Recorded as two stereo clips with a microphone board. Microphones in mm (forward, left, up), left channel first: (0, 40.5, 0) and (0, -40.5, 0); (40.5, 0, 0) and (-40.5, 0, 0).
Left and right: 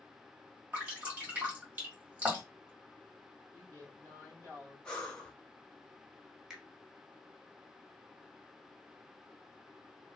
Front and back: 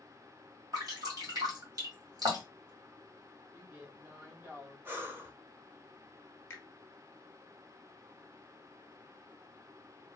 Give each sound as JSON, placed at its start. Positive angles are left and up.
{"t": 0.7, "sound": "dripping", "azimuth_deg": -160, "distance_m": 2.0}
{"t": 3.5, "sound": "a woman speaking", "azimuth_deg": -125, "distance_m": 1.5}
{"t": 4.8, "sound": "breathing", "azimuth_deg": 160, "distance_m": 0.8}
{"t": 6.5, "sound": "a finger snap", "azimuth_deg": -15, "distance_m": 1.1}